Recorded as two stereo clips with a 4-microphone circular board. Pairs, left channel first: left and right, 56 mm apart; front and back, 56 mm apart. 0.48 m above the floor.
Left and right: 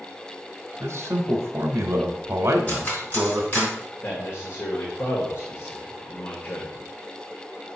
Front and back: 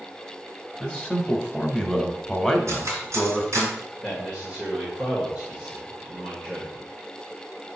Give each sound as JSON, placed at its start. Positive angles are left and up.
{"t": 0.8, "sound": "a man speaking", "azimuth_deg": -90, "distance_m": 1.0}
{"t": 2.7, "sound": "cutlery clinking", "azimuth_deg": 150, "distance_m": 3.0}
{"t": 4.0, "sound": "a man speaking", "azimuth_deg": 110, "distance_m": 1.7}